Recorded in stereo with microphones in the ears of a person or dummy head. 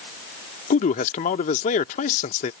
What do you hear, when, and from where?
0.7 s a man speaking: 40° left (ahead or behind)